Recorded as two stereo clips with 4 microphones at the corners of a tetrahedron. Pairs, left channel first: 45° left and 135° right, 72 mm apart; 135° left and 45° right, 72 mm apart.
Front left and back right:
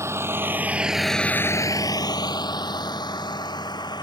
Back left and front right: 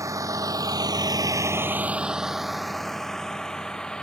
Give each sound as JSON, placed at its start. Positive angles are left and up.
{"t": 0.0, "sound": "a vehicle", "azimuth_deg": -85}